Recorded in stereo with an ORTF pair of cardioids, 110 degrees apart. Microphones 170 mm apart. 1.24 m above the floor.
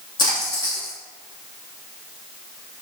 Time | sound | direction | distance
0.2 | a splash | 25° left | 1.5 m